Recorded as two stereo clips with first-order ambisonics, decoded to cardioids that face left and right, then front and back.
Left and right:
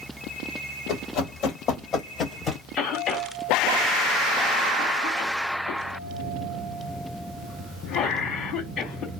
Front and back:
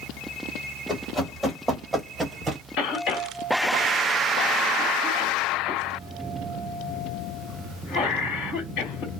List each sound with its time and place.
0.9 s running footsteps: 75° left, 1.8 m; by 2.6 s 145° left, 1.3 m
2.8 s a cough: 25° left, 2 m